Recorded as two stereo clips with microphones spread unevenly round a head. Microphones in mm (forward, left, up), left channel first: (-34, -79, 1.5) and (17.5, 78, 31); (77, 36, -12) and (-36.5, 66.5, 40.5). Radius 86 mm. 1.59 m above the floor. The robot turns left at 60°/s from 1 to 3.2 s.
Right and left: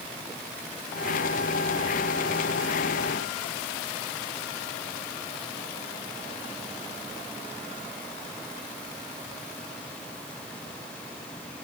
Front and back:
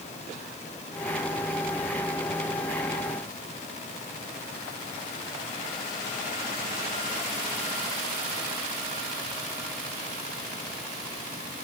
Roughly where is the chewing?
No chewing in this recording.